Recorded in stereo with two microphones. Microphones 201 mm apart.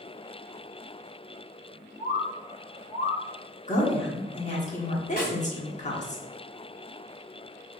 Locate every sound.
2.0 s a bird: 60° left (ahead or behind), 1.2 m
3.7 s a woman speaking: 35° left (ahead or behind), 1.2 m
5.2 s a snare drum: 50° left (ahead or behind), 1.9 m